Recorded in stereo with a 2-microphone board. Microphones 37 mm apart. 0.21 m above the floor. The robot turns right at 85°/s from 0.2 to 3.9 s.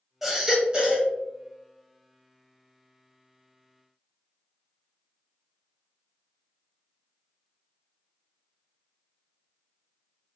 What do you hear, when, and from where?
0.2 s a baby crying: 160° right, 1.1 m; by 1.1 s 85° right, 1.1 m